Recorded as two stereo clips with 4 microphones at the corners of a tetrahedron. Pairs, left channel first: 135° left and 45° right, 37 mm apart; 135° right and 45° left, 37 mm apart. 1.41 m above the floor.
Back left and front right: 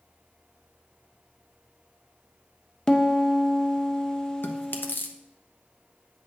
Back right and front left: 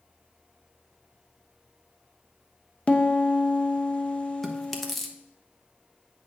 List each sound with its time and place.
2.9 s a piano: 165° right, 0.7 m
4.4 s chewing: 140° left, 0.8 m